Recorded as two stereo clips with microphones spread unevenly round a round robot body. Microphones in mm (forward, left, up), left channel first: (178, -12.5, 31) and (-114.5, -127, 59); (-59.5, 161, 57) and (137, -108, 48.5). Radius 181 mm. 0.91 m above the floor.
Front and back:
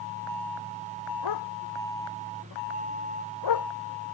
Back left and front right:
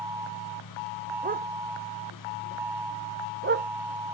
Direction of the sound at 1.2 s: 10° left.